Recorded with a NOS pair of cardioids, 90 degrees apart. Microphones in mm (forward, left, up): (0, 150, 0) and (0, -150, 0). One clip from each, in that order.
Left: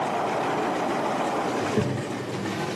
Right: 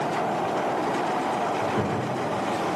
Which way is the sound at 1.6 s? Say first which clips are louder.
Right 1 dB; 35° left.